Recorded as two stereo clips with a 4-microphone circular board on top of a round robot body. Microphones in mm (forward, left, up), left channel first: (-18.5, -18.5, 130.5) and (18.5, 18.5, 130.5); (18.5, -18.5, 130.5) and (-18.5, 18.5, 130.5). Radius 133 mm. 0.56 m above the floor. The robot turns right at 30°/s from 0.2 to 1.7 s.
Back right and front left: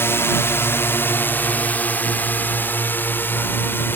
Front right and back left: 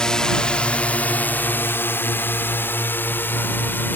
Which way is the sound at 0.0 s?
115° right.